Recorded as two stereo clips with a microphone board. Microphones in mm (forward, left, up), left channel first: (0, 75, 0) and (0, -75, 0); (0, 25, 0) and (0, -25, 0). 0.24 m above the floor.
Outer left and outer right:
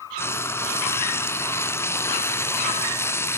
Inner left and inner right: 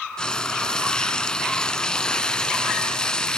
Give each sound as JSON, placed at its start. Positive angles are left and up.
{"t": 0.2, "sound": "frying", "side_deg": 15, "distance_m": 1.4}